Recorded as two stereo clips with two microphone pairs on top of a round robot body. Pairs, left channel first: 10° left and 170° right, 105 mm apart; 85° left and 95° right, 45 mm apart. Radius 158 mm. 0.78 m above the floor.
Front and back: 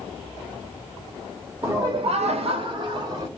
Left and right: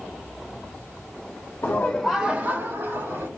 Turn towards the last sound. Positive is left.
turn(degrees=-115)